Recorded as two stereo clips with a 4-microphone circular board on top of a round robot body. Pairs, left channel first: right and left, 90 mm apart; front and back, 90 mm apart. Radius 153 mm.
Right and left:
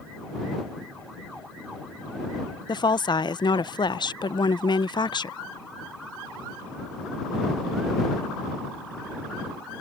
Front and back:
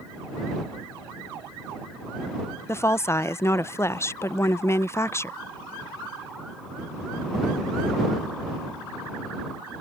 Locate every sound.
2.7 s a woman speaking: 60° right